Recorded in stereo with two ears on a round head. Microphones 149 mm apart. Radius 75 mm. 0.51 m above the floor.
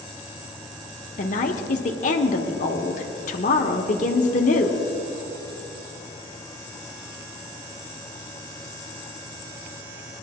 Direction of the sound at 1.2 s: 50° left (ahead or behind).